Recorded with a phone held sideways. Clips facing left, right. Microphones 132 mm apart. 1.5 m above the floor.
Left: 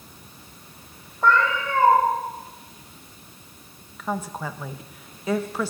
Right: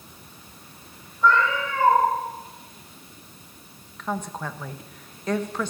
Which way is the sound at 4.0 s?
5° left (ahead or behind).